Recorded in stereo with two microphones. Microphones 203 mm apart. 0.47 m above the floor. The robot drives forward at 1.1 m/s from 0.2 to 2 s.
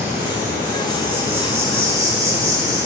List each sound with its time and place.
0.0 s an insect: 10° right (ahead or behind), 7 m; by 2.9 s 15° right (ahead or behind), 5 m